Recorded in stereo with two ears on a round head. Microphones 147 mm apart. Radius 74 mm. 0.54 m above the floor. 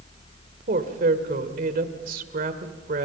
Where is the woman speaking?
55° right (ahead or behind), 2 m.